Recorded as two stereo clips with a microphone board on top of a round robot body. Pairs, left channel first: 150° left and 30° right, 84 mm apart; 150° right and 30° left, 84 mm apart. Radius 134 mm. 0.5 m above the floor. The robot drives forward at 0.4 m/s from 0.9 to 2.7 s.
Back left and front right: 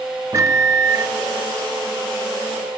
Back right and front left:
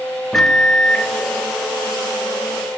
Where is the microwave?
65° right, 0.9 m; by 1.1 s 75° right, 0.9 m.